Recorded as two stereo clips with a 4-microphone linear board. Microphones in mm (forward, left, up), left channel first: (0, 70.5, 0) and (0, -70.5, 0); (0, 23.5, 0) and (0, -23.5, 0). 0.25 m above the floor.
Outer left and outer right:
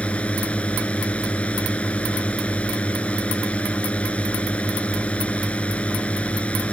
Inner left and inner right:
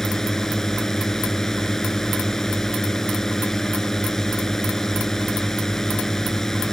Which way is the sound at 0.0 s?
10° left (ahead or behind).